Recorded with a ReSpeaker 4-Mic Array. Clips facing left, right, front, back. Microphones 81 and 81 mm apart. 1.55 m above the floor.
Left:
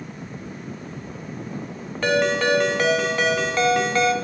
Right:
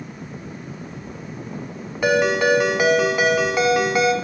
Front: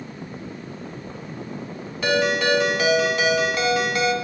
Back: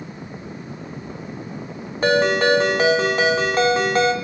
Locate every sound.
2.0 s a ringtone: 160° right, 1.0 m